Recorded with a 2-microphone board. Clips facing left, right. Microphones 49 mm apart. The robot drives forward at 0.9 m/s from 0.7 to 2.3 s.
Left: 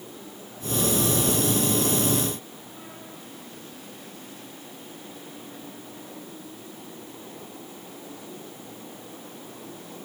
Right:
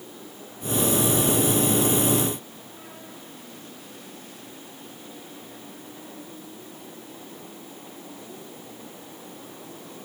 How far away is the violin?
I don't hear a violin.